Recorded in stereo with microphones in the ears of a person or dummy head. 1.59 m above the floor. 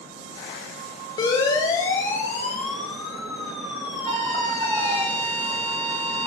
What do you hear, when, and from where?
1.2 s a siren: 25° left (ahead or behind), 5 m; by 5.0 s 15° right (ahead or behind), 8 m
4.0 s a flute: 35° right (ahead or behind), 3.5 m